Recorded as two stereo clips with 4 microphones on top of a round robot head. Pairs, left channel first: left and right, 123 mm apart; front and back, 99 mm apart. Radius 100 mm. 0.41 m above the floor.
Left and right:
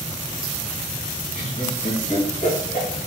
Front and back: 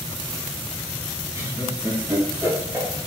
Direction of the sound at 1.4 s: 120° left.